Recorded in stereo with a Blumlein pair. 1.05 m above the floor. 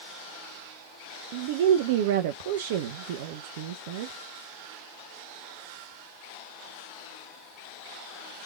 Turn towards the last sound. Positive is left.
turn(degrees=-50)